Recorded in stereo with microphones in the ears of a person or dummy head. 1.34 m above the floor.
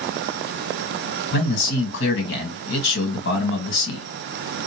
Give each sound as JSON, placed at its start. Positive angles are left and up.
{"t": 1.3, "sound": "a man speaking", "side_deg": 70, "distance_m": 1.7}